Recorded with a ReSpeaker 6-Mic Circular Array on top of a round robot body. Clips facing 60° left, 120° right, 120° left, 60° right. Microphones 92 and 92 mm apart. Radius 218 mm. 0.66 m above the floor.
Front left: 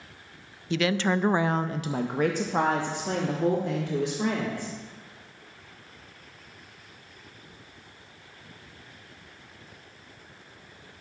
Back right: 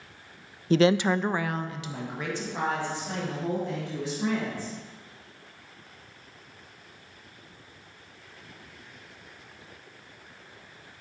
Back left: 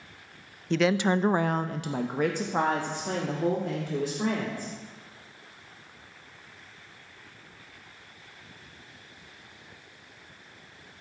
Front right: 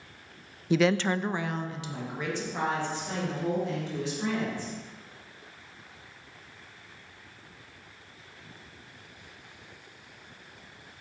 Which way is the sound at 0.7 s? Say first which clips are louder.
Back right 4 dB, even; 140° right.